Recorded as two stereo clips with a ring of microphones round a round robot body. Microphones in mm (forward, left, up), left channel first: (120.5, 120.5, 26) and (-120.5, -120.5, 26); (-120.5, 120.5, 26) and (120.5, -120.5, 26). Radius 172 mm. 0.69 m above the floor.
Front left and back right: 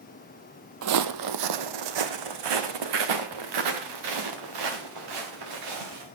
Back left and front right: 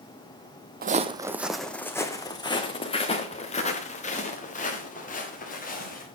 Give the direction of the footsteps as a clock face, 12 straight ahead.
3 o'clock.